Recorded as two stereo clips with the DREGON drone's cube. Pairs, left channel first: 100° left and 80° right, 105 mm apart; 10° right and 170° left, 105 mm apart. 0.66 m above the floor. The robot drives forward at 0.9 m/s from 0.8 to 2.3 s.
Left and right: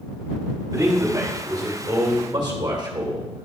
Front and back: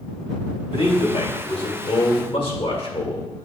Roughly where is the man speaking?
Ahead.